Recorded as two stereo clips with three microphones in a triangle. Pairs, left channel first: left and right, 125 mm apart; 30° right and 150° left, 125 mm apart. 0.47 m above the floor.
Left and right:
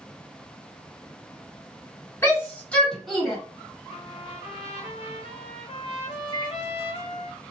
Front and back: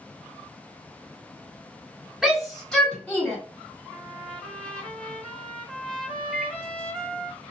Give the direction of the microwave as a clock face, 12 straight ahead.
10 o'clock.